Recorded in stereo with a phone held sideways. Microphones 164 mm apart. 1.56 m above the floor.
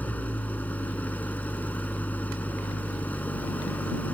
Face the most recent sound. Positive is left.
turn(degrees=10)  # may be behind; listen again after turning